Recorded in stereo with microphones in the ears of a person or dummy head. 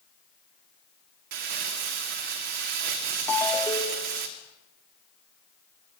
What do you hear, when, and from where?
1.3 s crumpling: 55° right (ahead or behind), 2.5 m
3.3 s a ringtone: 5° left (ahead or behind), 1.8 m